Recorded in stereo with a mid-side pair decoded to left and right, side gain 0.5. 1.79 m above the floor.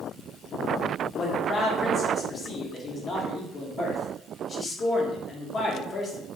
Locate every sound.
1.1 s a man speaking: 35° left, 1.3 m